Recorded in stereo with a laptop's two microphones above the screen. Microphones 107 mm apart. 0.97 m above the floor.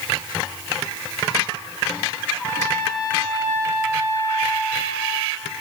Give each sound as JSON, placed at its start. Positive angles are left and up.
{"t": 2.3, "sound": "a trumpet", "side_deg": 25, "distance_m": 8.0}